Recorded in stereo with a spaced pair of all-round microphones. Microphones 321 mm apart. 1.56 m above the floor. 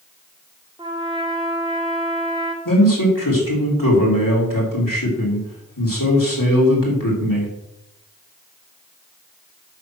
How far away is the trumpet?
About 1.7 m.